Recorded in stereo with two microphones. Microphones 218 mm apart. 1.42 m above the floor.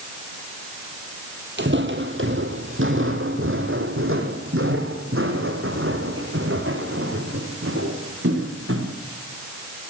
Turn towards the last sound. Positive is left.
turn(degrees=-75)  # may be behind; listen again after turning